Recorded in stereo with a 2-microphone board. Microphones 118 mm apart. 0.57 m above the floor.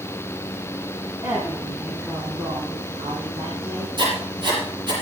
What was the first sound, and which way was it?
A woman speaking, 30° right (ahead or behind).